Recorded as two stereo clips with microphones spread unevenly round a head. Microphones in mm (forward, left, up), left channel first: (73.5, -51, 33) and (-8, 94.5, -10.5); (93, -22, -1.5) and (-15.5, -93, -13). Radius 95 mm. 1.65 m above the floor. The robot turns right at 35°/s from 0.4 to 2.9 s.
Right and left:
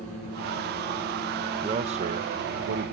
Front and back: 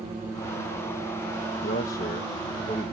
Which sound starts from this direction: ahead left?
A man speaking, at 1.6 s.